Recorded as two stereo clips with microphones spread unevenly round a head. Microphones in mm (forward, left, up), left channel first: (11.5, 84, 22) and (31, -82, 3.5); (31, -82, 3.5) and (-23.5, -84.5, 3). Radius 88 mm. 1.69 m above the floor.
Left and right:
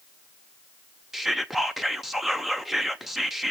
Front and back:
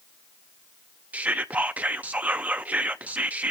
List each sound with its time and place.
1.1 s whispering: 175° left, 0.5 m